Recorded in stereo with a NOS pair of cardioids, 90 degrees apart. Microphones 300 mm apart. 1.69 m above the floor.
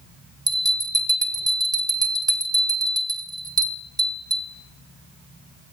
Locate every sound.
0.5 s a bell: 10° right, 1.0 m